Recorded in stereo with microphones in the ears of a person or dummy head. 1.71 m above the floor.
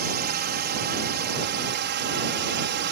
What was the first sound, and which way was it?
A drone, 45° right (ahead or behind).